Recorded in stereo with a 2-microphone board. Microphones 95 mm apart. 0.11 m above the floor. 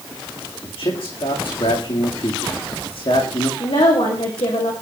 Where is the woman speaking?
80° left, 6 m.